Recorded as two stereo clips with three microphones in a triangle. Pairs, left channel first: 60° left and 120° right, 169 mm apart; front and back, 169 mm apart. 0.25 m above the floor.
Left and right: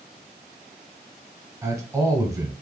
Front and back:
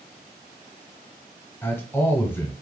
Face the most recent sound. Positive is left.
turn(degrees=-65)